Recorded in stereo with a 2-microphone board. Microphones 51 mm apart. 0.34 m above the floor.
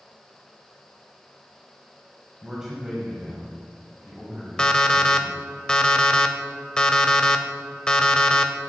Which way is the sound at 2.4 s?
15° right (ahead or behind).